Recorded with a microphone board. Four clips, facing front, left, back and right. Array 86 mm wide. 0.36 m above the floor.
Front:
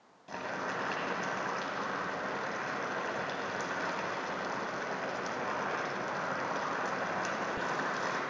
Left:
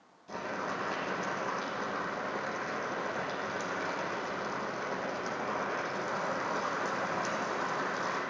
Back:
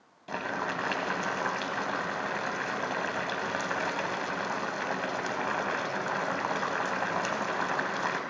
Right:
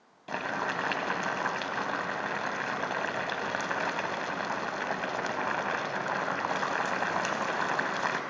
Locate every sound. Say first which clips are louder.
0.3 s boiling: right 4 dB, back 4 dB; 120° right, 0.8 m